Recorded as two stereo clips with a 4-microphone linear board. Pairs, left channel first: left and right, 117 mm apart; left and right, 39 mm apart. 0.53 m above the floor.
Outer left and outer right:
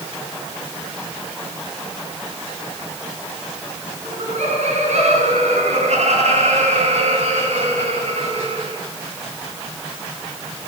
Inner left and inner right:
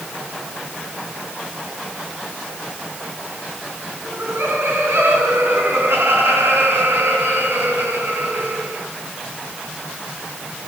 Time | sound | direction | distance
4.0 | laughter | 80° right | 6 m